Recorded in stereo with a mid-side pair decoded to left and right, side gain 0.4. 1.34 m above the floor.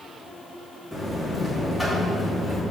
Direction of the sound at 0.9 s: 5° left.